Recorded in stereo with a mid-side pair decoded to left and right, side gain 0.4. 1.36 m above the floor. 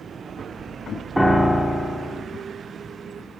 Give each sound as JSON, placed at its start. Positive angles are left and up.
{"t": 1.2, "sound": "a piano", "azimuth_deg": 0, "distance_m": 0.6}